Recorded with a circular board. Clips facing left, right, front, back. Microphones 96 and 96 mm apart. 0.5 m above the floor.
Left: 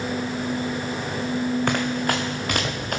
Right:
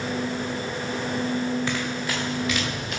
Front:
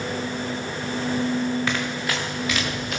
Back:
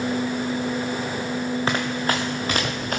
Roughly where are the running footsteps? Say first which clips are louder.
Left 5 dB, back 3 dB; behind left.